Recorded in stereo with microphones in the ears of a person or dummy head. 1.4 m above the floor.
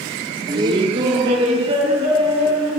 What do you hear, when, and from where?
0.5 s laughter: 30° right (ahead or behind), 1.0 m; by 2.8 s 40° right (ahead or behind), 3 m